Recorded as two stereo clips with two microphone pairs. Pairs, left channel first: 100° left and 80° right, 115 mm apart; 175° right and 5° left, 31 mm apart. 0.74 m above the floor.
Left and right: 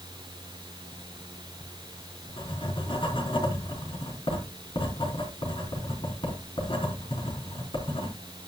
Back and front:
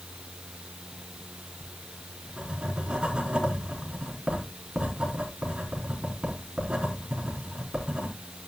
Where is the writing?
65° left, 4 m.